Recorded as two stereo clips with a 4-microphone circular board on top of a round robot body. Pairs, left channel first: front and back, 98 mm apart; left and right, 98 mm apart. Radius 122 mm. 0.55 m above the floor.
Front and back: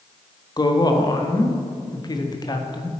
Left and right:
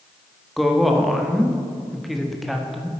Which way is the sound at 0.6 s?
Straight ahead.